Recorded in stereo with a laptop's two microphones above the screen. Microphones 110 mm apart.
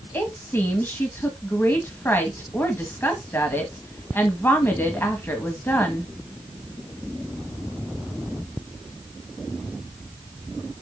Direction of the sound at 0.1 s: 20° left (ahead or behind).